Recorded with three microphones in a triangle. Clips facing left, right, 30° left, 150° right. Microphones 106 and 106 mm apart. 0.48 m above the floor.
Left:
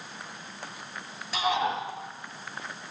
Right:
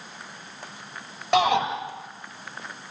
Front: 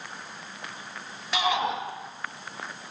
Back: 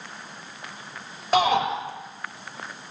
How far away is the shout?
About 8 m.